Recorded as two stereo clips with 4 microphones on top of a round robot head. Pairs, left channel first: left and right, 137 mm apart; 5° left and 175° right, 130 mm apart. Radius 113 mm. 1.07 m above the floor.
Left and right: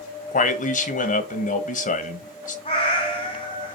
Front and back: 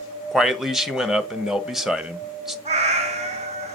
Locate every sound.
0.3 s a man speaking: 100° left, 1.6 m
2.6 s a cat meowing: 150° left, 1.7 m